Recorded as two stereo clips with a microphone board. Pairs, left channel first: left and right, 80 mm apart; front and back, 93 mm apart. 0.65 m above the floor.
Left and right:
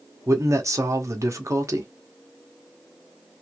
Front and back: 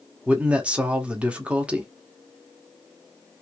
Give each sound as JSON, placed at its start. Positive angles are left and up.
{"t": 0.3, "sound": "a man speaking", "azimuth_deg": -105, "distance_m": 1.0}